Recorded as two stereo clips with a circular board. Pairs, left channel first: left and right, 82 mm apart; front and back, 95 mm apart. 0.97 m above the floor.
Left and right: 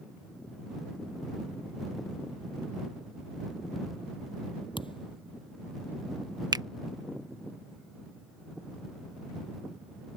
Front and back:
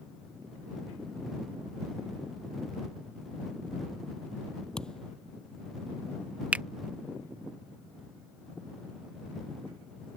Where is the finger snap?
110° right.